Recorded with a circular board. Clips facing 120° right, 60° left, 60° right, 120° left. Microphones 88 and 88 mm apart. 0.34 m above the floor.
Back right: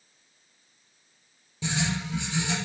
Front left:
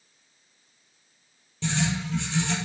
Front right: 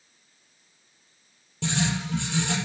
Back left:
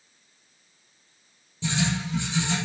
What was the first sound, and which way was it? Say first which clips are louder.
Writing: front left 2 dB, even; 40° right.